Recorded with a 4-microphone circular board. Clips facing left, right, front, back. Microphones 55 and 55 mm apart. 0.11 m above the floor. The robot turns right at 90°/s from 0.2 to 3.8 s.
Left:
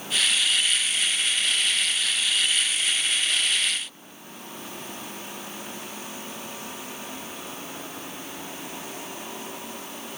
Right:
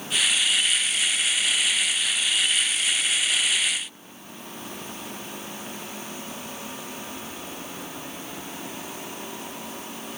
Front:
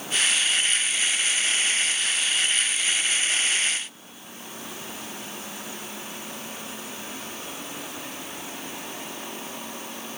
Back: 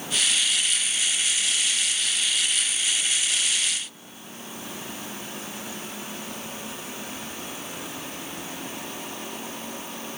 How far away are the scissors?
I don't hear scissors.